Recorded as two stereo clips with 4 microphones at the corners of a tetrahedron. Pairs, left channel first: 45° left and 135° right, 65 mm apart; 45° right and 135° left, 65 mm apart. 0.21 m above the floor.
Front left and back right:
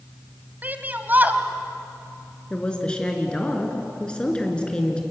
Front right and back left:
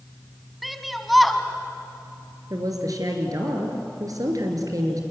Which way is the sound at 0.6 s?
135° right.